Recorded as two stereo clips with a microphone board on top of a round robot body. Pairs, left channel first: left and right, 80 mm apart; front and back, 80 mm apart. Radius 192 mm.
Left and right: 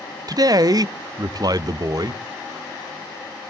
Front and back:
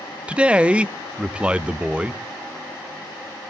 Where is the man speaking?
105° right, 0.9 m.